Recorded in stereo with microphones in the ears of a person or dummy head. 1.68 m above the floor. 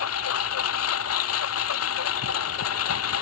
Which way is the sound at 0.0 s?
85° left.